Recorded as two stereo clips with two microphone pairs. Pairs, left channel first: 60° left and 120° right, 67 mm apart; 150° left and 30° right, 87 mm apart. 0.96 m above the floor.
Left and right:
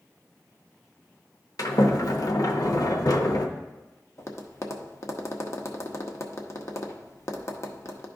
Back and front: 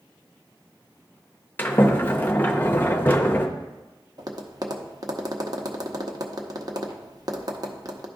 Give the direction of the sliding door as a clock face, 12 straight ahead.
9 o'clock.